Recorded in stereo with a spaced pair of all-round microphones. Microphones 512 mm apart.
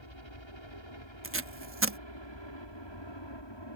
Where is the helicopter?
60° left (ahead or behind); by 3.8 s 55° left (ahead or behind).